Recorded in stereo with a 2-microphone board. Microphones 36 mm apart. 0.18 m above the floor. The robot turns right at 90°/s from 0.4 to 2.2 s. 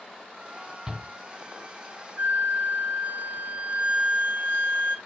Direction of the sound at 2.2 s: 50° right (ahead or behind).